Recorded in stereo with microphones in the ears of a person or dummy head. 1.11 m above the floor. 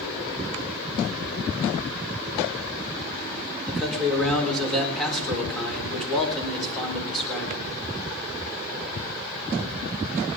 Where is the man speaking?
Centre (ahead or behind), 4 m.